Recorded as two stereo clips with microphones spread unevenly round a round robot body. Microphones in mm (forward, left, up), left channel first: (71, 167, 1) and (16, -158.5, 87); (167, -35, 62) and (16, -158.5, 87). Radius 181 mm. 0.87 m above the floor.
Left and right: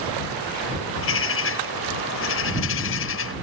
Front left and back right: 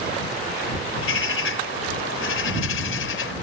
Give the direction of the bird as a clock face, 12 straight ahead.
11 o'clock.